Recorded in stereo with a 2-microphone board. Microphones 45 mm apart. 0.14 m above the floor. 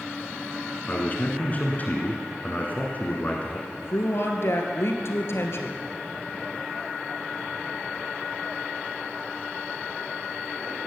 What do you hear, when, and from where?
0.9 s a man speaking: 35° left (ahead or behind), 1.6 m
3.7 s a woman speaking: 60° left (ahead or behind), 2 m